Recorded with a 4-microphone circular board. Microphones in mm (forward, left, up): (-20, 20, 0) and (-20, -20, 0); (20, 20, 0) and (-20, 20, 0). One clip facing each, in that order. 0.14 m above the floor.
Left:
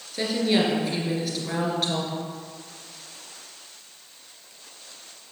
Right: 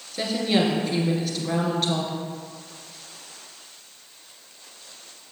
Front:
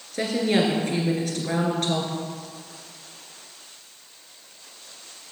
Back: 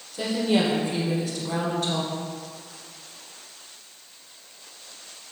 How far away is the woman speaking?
About 2.5 m.